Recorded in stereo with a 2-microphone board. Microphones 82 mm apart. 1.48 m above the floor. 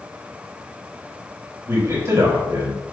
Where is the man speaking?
45° right (ahead or behind), 3 m.